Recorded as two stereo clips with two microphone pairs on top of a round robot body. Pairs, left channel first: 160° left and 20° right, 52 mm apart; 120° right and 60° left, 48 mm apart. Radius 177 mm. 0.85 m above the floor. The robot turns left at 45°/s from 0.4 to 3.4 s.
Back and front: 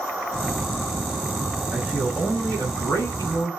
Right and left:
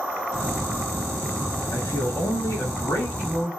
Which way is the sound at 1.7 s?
110° right.